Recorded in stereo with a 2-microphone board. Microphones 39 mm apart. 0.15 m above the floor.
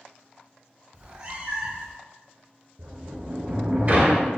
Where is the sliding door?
45° right (ahead or behind), 0.5 m.